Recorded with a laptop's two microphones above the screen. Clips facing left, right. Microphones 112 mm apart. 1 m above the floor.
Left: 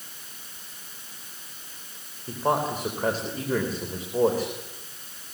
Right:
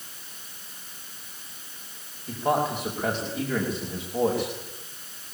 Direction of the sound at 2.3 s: 40° left (ahead or behind).